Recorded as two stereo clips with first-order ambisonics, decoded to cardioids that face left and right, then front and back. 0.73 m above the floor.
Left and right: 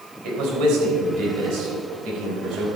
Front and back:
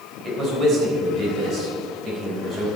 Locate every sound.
0.2 s a man speaking: 125° right, 4.5 m